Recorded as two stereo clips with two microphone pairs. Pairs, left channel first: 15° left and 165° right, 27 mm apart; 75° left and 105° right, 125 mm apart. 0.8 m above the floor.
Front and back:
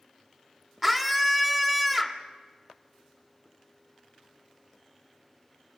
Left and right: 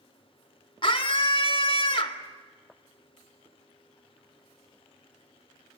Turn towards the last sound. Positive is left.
turn(degrees=120)